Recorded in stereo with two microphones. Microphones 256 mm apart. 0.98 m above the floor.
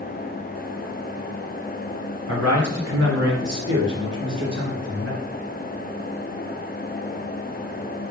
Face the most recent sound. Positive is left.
turn(degrees=-70)  # may be behind; listen again after turning